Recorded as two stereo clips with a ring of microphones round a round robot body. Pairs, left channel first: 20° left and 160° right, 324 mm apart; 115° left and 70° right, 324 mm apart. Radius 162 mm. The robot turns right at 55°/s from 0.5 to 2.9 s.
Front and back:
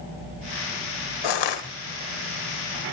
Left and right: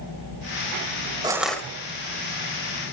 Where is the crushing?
10° left, 1.9 m; by 1.6 s 30° left, 1.9 m.